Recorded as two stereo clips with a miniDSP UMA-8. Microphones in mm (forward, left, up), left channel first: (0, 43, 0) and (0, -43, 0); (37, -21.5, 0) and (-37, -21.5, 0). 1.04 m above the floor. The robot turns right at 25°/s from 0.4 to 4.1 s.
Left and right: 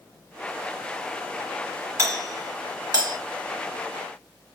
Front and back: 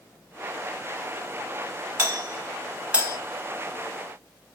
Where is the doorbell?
135° right, 2 m; by 3.2 s 105° right, 2 m.